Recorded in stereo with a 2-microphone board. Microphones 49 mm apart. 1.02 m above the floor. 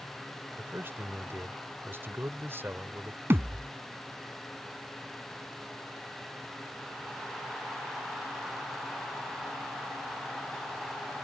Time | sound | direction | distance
0.6 | a man speaking | 50° right (ahead or behind) | ?
3.3 | a thud | 55° right (ahead or behind) | ?